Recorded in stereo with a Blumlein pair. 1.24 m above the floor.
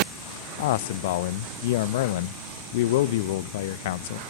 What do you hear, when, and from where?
0.6 s a man speaking: 55° left, 0.8 m